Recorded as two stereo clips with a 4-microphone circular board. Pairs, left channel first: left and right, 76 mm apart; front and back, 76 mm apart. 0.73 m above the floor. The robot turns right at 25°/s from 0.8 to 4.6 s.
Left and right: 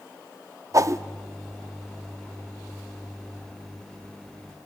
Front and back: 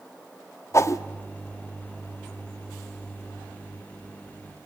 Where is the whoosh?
50° right, 0.7 m; by 1.0 s 45° right, 0.7 m.